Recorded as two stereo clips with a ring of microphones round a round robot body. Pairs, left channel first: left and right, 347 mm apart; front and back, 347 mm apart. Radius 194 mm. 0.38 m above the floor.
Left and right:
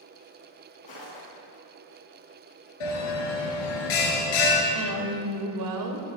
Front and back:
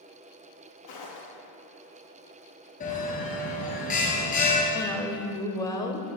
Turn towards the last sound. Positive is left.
turn(degrees=-80)